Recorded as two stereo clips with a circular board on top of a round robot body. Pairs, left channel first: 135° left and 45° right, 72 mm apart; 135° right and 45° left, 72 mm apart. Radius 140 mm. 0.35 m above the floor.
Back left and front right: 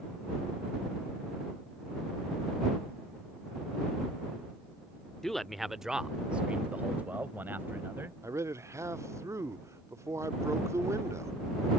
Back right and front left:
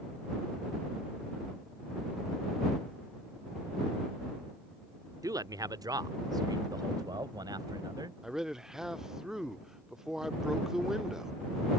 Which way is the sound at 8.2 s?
35° right.